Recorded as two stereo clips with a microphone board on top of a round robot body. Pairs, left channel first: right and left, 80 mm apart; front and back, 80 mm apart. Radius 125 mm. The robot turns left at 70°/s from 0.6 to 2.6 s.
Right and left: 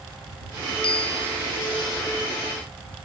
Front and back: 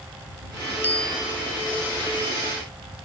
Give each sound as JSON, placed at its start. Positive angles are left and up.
{"t": 0.8, "sound": "a bicycle bell", "azimuth_deg": -70}